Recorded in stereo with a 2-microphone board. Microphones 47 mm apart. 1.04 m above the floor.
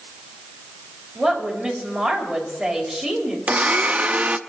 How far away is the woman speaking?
About 5.5 m.